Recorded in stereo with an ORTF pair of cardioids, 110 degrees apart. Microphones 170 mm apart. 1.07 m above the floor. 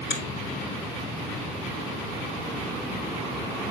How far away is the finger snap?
About 2.5 m.